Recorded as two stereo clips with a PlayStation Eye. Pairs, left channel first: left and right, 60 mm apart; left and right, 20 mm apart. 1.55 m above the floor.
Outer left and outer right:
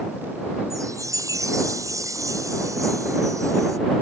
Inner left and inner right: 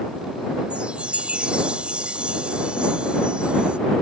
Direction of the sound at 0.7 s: 65° right (ahead or behind).